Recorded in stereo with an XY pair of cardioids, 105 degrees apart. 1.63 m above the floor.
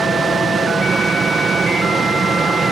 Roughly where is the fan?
Ahead right.